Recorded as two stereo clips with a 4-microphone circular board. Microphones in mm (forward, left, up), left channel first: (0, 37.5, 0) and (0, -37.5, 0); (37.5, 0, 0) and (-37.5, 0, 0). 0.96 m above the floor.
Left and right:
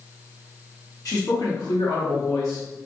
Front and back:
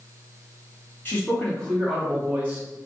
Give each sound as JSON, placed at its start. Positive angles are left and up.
{"t": 1.1, "sound": "a man speaking", "azimuth_deg": 60, "distance_m": 1.5}